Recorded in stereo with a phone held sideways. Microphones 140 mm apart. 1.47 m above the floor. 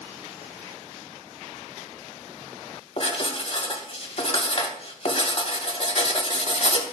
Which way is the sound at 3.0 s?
55° left (ahead or behind).